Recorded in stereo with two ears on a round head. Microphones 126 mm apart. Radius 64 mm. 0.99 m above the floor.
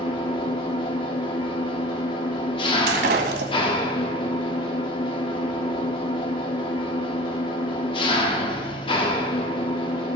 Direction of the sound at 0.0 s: 35° left (ahead or behind).